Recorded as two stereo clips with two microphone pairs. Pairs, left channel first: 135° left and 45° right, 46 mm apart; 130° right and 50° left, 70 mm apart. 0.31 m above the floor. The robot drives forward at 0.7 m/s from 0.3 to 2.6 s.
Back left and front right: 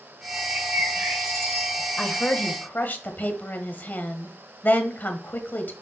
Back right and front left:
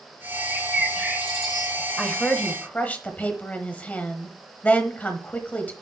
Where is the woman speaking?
160° left, 1.0 m; by 5.7 s 170° left, 1.2 m.